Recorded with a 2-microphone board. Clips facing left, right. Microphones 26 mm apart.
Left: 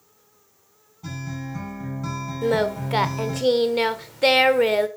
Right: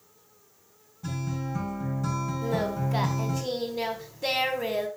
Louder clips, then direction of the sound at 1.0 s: Even; 20° left (ahead or behind).